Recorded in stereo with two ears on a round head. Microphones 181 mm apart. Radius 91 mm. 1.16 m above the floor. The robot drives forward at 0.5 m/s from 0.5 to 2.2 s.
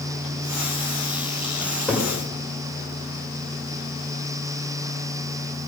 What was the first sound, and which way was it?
A cupboard door, centre (ahead or behind).